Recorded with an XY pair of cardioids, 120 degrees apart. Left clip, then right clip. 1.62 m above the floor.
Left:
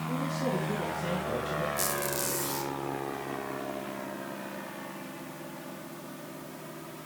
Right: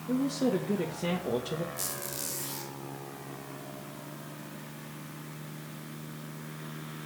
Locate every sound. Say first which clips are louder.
0.1 s a woman speaking: right 3 dB; 35° right, 2.5 m
1.8 s a squeak: left 7 dB; 20° left, 3 m